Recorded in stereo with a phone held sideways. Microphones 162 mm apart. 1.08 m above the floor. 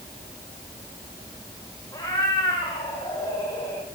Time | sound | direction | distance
1.9 | a cat meowing | 20° left (ahead or behind) | 7.5 m